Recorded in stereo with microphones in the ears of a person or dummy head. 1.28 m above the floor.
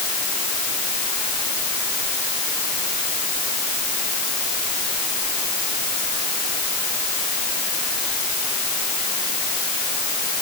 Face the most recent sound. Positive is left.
No sound to turn to.